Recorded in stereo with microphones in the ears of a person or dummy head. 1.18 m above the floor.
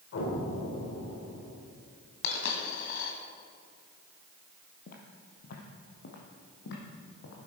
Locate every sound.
0.1 s an explosion: 70° left (ahead or behind), 3.5 m
2.2 s a dropped coin: 65° left (ahead or behind), 2 m
4.9 s footsteps: 50° left (ahead or behind), 2 m; by 7.5 s 70° left (ahead or behind), 3.5 m